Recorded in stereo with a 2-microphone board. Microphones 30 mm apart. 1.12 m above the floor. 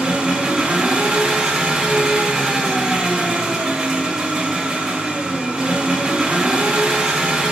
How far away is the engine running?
About 1.6 m.